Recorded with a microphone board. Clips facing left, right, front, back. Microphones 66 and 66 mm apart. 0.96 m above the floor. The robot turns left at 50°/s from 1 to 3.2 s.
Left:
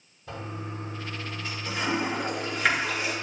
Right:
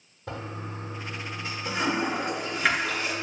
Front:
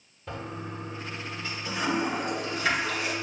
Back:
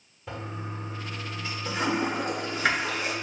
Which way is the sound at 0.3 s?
95° right.